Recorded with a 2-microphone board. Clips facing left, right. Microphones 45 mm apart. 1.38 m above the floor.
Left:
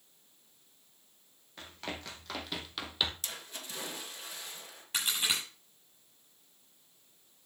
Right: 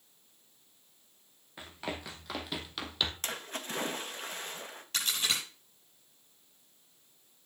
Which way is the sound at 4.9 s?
15° left (ahead or behind).